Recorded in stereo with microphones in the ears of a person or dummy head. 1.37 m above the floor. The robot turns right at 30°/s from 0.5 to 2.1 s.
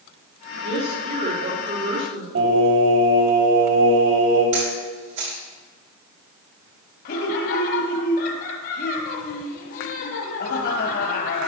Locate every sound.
0.6 s a woman speaking: 150° right, 4 m; by 2.2 s 105° right, 4 m
2.4 s singing: 75° right (ahead or behind), 3.5 m
4.5 s a camera shutter: 45° right (ahead or behind), 3 m
7.0 s laughter: 55° left (ahead or behind), 1.0 m